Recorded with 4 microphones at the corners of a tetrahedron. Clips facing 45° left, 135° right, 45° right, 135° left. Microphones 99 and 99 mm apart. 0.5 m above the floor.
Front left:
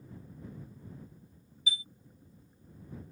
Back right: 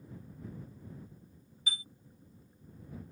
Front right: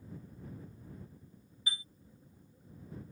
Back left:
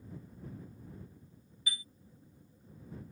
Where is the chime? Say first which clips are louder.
Front left 2 dB, even; 105° right.